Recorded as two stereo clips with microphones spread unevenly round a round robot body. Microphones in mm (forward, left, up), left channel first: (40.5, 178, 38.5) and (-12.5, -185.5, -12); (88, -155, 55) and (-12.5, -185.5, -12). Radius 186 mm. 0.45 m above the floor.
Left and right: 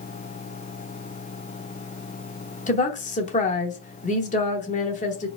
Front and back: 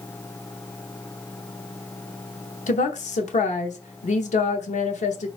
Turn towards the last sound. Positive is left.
turn(degrees=15)